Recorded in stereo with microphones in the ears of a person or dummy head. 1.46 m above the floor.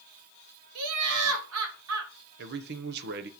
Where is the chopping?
I don't hear chopping.